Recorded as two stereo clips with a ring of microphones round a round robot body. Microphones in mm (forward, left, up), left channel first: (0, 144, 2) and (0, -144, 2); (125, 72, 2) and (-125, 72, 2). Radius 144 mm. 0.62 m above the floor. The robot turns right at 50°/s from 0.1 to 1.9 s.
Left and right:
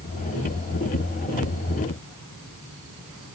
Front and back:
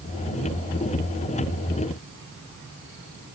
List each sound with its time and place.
Only background noise.